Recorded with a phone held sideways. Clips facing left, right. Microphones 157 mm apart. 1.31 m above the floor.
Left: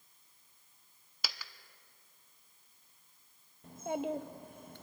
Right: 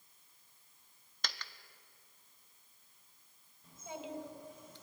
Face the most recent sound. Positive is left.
turn(degrees=60)  # may be behind; listen again after turning